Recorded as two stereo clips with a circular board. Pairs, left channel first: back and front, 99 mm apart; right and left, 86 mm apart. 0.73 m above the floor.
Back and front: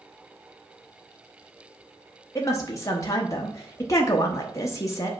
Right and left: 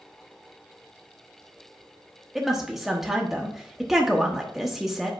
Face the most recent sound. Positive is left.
turn(degrees=175)